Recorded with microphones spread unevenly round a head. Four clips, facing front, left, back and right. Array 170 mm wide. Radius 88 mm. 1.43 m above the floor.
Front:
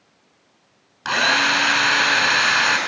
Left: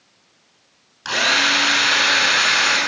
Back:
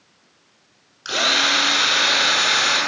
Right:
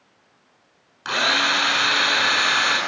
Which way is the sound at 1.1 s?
10° right.